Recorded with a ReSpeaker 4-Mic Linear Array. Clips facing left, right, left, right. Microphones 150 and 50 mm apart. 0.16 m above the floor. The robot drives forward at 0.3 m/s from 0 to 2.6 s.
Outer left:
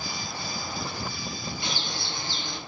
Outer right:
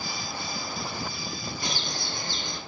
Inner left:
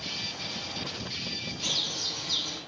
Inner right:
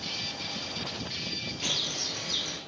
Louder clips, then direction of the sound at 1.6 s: Even, inner right 1 dB; 40° right (ahead or behind).